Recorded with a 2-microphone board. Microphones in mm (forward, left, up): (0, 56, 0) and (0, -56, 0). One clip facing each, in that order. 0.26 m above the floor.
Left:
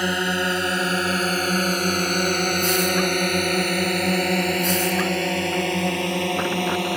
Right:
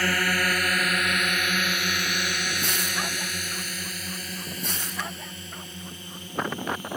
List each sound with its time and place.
0.0 s a drone: 20° left (ahead or behind); by 7.0 s 75° left (ahead or behind)